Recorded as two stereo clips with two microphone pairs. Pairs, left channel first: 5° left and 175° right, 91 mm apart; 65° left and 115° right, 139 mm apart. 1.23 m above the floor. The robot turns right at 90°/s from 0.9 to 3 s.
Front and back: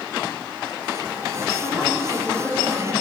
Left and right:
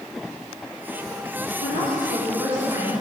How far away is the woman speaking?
About 3.5 m.